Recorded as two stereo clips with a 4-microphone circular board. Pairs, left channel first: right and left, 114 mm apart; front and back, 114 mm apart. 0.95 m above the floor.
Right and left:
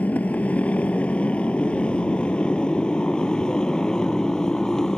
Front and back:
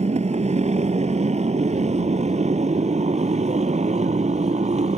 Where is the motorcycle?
165° right; by 5.0 s 175° right.